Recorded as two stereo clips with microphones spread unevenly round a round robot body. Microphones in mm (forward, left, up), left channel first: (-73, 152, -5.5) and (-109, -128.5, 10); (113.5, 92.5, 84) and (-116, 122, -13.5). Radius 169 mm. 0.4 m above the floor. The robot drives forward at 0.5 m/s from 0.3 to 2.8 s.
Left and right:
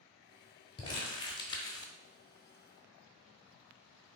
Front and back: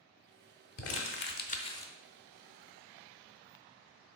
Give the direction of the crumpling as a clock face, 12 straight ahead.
11 o'clock.